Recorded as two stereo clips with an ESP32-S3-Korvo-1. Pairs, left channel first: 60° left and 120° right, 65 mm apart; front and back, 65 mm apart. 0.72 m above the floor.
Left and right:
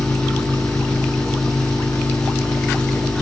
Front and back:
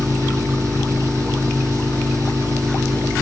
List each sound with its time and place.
0.0 s an engine running: 140° left, 6 m